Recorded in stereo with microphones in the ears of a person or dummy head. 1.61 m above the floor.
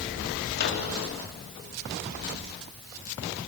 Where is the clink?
No clink in this recording.